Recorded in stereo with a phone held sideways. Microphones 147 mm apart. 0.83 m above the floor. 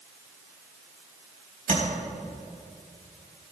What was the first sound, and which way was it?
Tapping, 65° right (ahead or behind).